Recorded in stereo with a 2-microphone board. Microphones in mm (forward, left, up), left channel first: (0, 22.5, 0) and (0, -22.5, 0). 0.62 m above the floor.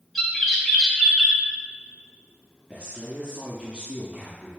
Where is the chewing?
I don't hear chewing.